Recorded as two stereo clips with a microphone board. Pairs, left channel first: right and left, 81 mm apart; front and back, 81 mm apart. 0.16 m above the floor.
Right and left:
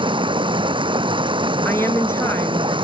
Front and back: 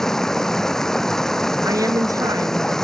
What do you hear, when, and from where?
0.0 s running water: 85° left
1.6 s a woman speaking: 145° right